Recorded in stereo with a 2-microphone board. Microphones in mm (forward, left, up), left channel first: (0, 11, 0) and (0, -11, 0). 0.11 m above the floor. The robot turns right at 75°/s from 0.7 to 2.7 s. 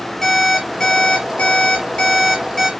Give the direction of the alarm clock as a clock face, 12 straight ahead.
11 o'clock.